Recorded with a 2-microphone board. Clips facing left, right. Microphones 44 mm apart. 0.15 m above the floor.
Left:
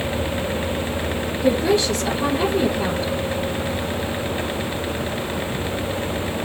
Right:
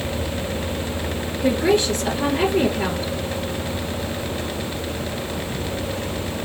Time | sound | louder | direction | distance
1.4 | a woman speaking | even | 55° right (ahead or behind) | 2.5 m